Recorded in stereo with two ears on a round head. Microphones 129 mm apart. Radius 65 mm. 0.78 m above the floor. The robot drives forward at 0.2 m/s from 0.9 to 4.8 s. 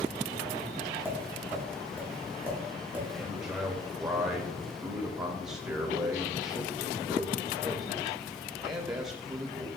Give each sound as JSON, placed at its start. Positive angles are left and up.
{"t": 1.1, "sound": "tapping", "side_deg": -15, "distance_m": 1.9}
{"t": 3.1, "sound": "a man speaking", "side_deg": -20, "distance_m": 1.0}